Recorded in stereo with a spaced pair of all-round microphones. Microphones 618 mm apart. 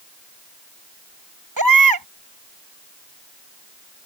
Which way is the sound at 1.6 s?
35° right (ahead or behind).